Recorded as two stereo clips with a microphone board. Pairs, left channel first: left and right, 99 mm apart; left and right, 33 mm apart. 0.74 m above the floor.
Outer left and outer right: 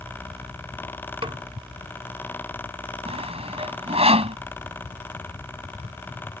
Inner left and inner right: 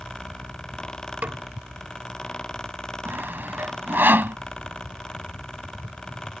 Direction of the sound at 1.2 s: 65° right (ahead or behind).